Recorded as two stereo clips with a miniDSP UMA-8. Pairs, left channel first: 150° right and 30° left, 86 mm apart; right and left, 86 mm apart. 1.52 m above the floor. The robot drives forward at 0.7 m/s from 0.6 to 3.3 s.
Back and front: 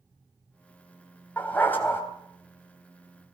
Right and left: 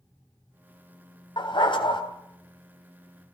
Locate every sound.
1.4 s a dog barking: 80° right, 3 m; by 2.0 s 90° right, 3 m